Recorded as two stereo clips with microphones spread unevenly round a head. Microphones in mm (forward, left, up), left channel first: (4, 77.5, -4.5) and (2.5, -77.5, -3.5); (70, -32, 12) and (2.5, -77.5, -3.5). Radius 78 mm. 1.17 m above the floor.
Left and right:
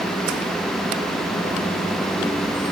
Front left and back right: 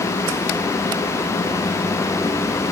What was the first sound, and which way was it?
Only background noise.